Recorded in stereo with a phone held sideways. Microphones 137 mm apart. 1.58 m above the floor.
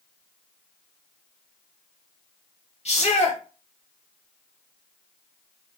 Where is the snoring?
I don't hear snoring.